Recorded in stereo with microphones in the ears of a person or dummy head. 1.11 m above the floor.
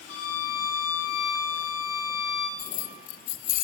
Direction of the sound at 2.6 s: 50° left (ahead or behind).